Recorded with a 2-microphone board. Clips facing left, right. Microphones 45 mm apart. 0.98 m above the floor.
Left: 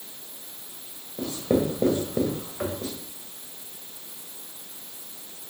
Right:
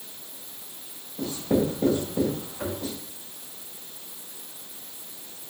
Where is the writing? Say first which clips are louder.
Even; 70° left (ahead or behind), 2 m.